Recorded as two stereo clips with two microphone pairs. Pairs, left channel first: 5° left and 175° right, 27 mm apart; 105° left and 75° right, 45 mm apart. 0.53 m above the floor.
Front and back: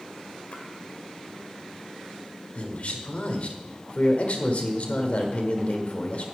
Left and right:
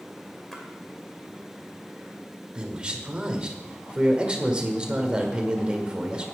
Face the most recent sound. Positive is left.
turn(degrees=-10)